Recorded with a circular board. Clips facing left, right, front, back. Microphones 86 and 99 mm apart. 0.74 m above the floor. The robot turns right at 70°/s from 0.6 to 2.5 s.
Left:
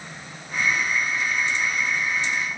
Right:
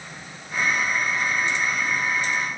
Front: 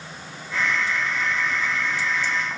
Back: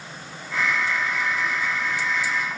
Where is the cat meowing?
I don't hear a cat meowing.